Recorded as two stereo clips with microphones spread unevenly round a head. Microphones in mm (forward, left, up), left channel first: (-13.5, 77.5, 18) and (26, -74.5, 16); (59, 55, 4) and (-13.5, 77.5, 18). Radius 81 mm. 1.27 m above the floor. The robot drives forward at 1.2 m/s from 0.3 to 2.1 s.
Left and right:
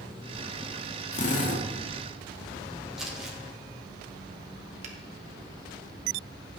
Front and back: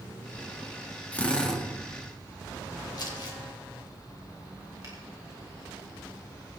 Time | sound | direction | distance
1.1 | a drill | 55° left | 2 m
3.0 | crumpling | 10° left | 3 m
4.8 | a finger snap | 125° right | 1.8 m